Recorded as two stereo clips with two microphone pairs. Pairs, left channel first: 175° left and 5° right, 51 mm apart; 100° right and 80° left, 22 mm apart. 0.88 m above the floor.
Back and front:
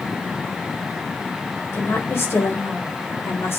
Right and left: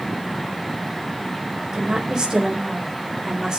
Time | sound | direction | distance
1.7 | a woman speaking | 135° left | 4.5 m